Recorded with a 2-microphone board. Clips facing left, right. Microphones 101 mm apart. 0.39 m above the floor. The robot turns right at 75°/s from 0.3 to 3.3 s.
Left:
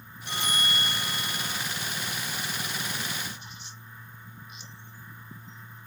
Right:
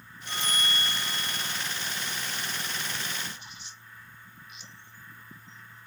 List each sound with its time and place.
0.3 s a bell: 95° left, 1.0 m; by 1.6 s 170° right, 1.0 m